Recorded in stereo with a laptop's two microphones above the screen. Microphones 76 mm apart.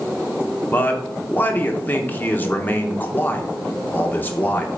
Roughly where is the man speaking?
Left.